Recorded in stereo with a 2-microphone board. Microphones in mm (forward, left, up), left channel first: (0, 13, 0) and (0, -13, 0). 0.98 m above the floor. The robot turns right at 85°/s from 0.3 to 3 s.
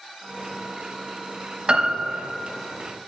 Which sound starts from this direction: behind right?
A piano, at 1.7 s.